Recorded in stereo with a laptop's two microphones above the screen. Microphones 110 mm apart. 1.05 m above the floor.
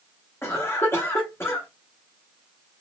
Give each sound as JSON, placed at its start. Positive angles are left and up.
{"t": 0.4, "sound": "a cough", "side_deg": 20, "distance_m": 0.8}